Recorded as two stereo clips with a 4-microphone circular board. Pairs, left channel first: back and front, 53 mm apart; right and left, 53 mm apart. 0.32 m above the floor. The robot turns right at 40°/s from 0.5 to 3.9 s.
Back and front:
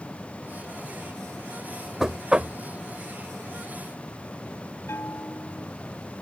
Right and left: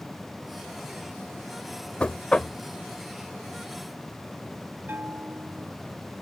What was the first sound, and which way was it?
Knocking, 70° right.